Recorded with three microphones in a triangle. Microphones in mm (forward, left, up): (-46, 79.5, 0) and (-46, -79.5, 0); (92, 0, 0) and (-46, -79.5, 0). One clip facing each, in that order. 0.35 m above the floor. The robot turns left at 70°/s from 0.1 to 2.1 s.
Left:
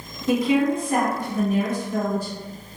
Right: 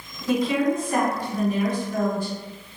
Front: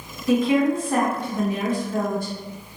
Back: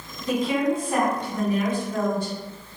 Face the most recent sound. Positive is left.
turn(degrees=40)